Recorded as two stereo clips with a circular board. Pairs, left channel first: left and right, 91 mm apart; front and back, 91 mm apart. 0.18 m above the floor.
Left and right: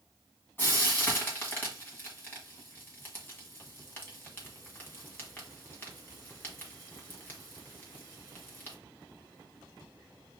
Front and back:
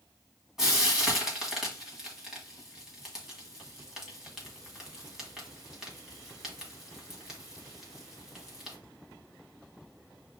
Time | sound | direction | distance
0.6 | frying | 105° left | 1.5 m